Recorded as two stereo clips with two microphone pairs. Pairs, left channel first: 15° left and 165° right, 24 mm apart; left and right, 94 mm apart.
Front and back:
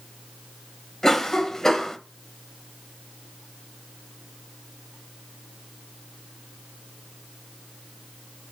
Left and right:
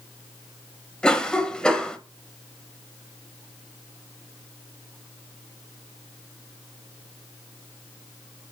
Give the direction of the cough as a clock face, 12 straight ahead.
11 o'clock.